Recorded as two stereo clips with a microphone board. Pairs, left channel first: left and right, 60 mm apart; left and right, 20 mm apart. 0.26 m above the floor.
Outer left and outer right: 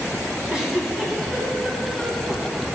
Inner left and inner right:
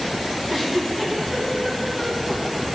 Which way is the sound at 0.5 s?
10° right (ahead or behind).